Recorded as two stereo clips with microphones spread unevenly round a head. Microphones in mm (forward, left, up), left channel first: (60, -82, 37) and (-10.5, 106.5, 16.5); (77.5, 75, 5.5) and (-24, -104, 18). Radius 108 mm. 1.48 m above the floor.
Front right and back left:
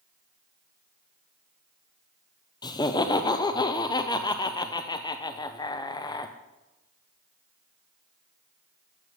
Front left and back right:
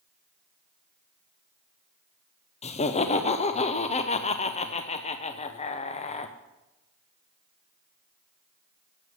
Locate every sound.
2.6 s laughter: straight ahead, 0.8 m